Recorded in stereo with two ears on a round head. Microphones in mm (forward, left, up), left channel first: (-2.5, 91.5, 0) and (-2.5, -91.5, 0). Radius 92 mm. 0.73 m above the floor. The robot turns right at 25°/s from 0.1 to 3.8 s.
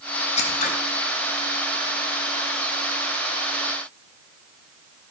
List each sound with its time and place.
0.4 s scissors: 30° left (ahead or behind), 1.1 m; by 0.7 s 35° left (ahead or behind), 1.1 m